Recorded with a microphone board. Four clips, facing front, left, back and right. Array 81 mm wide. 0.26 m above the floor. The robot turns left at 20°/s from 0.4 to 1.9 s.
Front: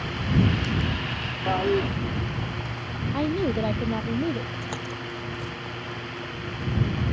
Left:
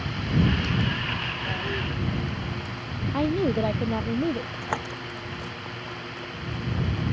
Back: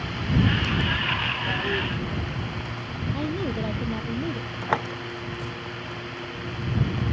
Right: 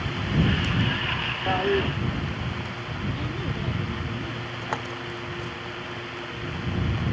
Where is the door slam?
175° left.